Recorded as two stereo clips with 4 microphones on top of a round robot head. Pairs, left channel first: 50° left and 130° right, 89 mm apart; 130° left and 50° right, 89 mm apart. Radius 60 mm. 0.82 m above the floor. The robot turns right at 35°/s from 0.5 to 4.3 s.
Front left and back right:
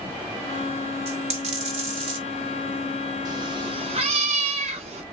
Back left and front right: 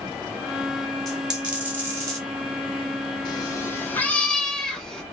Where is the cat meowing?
Straight behind, 0.5 m; by 5.0 s 145° right, 0.5 m.